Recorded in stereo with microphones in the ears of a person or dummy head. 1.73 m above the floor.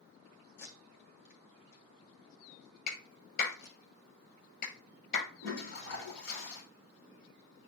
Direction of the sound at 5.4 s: 80° left.